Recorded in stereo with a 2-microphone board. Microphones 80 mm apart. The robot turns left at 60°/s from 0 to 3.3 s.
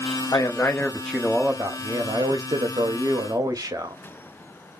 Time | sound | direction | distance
0.3 | a man speaking | 50° left | 0.6 m